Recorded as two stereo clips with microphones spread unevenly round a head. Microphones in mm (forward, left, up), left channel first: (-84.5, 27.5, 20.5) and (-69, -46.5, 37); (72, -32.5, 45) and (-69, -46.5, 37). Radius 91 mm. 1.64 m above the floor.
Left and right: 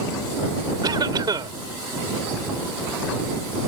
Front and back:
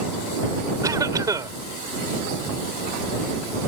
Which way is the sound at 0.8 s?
105° right.